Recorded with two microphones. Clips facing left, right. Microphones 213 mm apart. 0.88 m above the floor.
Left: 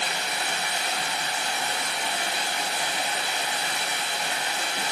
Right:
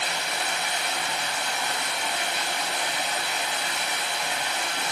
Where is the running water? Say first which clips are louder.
Even; 35° left (ahead or behind), 1.0 m.